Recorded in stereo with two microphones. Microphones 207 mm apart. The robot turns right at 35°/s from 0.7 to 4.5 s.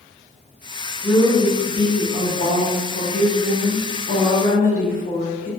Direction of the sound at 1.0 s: Straight ahead.